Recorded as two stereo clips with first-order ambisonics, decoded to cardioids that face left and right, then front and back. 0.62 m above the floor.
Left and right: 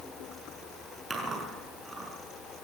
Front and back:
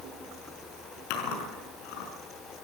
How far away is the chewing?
About 5.5 m.